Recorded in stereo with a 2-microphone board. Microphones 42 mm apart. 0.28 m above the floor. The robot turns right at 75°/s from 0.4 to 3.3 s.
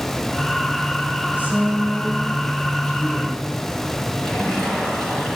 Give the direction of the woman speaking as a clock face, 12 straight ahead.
3 o'clock.